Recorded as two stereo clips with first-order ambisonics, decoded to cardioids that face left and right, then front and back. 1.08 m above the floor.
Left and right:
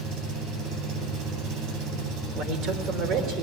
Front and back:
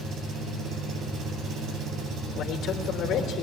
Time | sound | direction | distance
0.0 | an engine running | 125° right | 3.5 m
2.4 | a man speaking | 50° right | 3.5 m